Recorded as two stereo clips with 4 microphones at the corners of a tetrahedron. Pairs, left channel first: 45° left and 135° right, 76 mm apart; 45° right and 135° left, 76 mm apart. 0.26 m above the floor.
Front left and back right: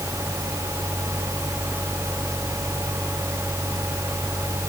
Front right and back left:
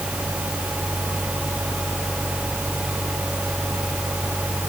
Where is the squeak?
No squeak in this recording.